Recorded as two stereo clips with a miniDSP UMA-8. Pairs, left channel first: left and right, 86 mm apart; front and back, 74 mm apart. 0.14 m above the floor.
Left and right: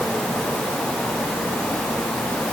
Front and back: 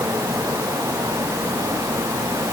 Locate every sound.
Only background noise.